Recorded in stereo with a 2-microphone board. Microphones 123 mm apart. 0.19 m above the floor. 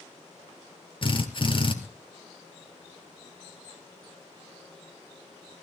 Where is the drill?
40° left (ahead or behind), 2 m.